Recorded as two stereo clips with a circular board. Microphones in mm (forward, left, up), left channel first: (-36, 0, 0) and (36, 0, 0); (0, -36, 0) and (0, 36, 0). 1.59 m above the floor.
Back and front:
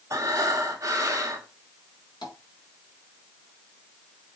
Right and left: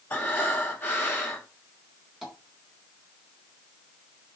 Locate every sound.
0.1 s breathing: 35° right, 1.8 m
2.2 s tapping: 175° left, 3.5 m